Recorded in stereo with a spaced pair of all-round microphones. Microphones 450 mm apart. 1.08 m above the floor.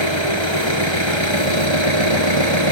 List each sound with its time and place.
0.0 s an engine running: 80° right